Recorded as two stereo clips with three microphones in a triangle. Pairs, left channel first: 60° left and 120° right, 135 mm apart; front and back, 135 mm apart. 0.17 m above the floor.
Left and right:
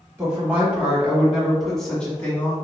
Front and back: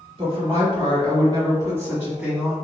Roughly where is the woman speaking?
Behind.